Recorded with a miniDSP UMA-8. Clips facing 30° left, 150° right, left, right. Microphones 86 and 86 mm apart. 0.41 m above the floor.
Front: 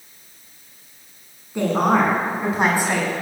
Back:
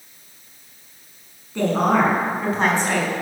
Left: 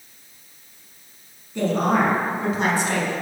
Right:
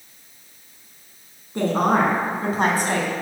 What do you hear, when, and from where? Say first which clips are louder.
1.6 s a woman speaking: even, right 1 dB; 45° right, 5 m; by 3.1 s 50° right, 3.5 m